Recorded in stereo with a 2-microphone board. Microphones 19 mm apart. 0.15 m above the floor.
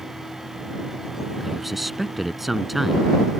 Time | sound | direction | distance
1.4 | a man speaking | 10° right (ahead or behind) | ?